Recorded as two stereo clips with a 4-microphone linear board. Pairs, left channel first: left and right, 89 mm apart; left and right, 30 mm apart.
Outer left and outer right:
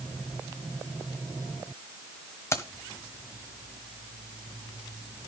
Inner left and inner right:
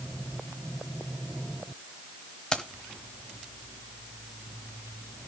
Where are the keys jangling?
30° left (ahead or behind), 1.1 m.